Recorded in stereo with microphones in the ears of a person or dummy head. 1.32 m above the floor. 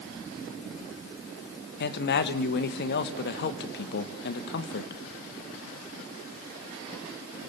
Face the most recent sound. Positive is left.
turn(degrees=65)  # may be behind; listen again after turning